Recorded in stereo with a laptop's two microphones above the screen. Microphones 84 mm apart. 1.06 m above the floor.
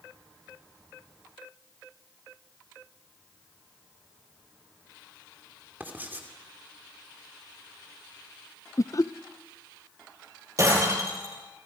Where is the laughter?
40° left (ahead or behind), 0.7 m.